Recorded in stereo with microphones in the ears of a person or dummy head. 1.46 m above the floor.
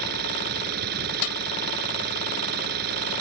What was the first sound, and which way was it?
An engine running, 60° right (ahead or behind).